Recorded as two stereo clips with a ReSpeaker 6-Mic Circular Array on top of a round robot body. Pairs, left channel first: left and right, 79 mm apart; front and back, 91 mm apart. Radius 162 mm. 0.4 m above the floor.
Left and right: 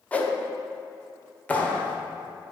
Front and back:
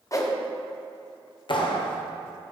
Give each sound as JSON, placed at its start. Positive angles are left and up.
{"t": 0.1, "sound": "a whoosh", "azimuth_deg": 25, "distance_m": 1.5}
{"t": 1.5, "sound": "a clap", "azimuth_deg": 20, "distance_m": 1.5}